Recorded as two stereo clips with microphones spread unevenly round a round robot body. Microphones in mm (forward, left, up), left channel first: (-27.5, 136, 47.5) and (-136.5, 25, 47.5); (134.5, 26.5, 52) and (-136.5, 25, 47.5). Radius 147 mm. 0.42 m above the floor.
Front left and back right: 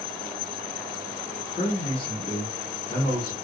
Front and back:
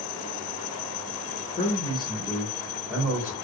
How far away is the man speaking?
About 1.1 m.